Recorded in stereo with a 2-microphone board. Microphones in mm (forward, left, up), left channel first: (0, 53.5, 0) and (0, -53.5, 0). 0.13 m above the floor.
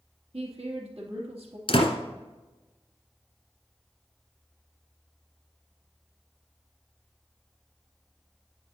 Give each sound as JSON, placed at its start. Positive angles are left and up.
{"t": 0.3, "sound": "a woman speaking", "side_deg": -55, "distance_m": 2.5}
{"t": 1.7, "sound": "a door slam", "side_deg": 55, "distance_m": 1.7}